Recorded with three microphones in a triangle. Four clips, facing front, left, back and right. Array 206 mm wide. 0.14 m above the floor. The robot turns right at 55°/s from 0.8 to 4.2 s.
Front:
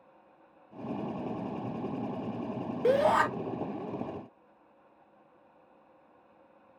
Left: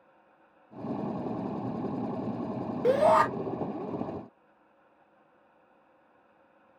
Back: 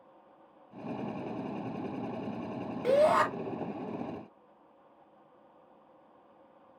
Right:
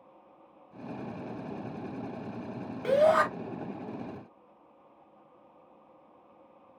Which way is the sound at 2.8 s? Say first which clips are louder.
Left 1 dB, even; 70° left.